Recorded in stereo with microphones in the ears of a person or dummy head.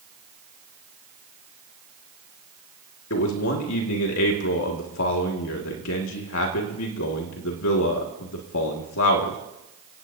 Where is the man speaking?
70° left (ahead or behind), 2 m.